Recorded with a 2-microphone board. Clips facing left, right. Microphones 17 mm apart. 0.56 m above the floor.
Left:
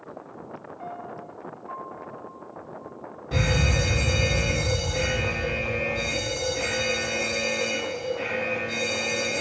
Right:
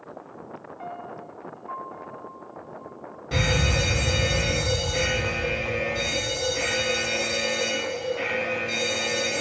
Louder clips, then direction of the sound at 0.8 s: Right 1 dB; 20° right (ahead or behind).